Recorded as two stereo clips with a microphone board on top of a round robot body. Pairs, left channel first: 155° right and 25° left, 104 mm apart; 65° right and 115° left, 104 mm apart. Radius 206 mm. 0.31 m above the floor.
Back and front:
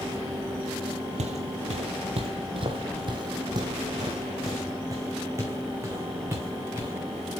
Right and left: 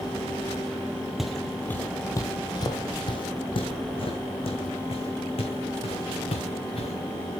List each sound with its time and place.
1.2 s footsteps: 25° left, 0.9 m; by 6.9 s 45° right, 3.5 m